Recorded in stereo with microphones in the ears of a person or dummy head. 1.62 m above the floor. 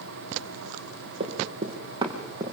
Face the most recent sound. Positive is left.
turn(degrees=-20)  # may be behind; listen again after turning